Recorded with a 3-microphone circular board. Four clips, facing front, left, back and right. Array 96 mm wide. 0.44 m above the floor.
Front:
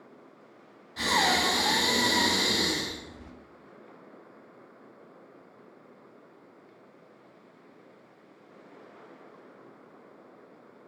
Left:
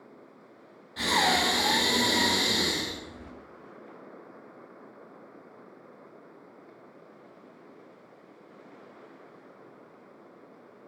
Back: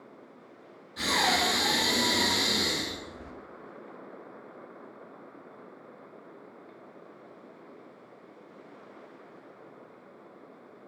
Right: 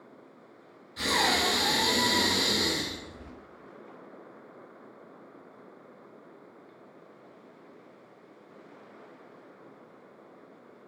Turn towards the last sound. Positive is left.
turn(degrees=40)